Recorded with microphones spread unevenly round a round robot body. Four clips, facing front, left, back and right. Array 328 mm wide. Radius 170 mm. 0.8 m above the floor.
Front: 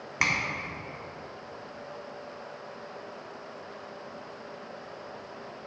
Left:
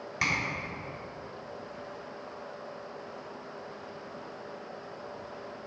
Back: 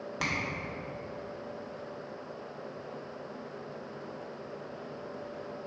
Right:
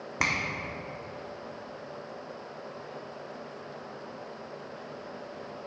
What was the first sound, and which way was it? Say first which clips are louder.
A finger snap: right 1 dB, front 5 dB; 70° right.